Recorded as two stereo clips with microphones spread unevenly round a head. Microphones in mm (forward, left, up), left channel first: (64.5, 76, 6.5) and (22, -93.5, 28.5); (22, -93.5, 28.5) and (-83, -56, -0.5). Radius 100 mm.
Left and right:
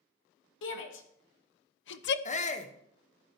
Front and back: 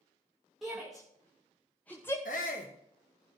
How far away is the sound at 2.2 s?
About 1.4 m.